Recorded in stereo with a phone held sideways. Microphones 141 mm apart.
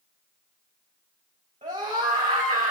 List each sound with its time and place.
1.6 s a scream: 80° right, 3.5 m; by 2.7 s 85° right, 3 m